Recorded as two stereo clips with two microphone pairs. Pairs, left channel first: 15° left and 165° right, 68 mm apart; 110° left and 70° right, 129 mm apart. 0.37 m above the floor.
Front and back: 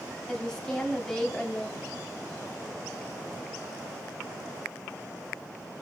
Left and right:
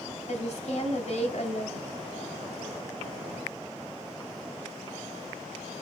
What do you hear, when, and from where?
0.3 s a woman speaking: 95° left, 2.5 m